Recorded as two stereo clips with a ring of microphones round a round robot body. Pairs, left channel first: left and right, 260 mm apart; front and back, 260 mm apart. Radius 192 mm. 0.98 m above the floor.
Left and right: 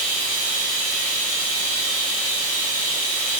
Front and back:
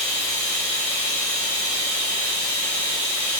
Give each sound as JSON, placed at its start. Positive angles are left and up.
{"t": 0.0, "sound": "running water", "azimuth_deg": -90, "distance_m": 1.4}